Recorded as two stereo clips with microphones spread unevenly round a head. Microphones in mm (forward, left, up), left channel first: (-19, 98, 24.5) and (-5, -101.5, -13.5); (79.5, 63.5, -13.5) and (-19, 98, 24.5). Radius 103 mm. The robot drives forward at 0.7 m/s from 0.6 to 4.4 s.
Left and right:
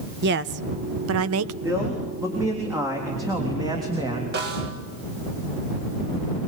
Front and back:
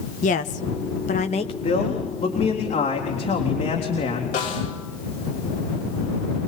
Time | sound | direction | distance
0.2 | a woman speaking | 45° right | 1.1 m
1.6 | a man speaking | 10° right | 4.5 m
4.3 | a snare drum | 40° right | 4.5 m